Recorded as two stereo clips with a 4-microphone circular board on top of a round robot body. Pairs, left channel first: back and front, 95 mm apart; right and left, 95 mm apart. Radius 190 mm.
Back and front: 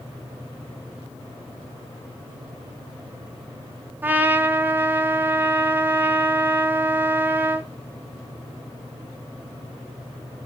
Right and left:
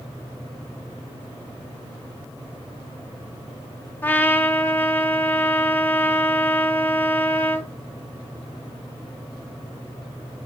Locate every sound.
4.0 s a trumpet: 45° right, 0.6 m